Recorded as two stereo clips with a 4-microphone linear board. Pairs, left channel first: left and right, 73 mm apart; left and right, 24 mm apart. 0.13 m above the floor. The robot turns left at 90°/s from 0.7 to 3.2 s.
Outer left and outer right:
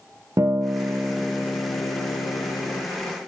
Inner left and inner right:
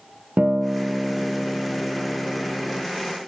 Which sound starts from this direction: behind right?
A guitar, at 0.4 s.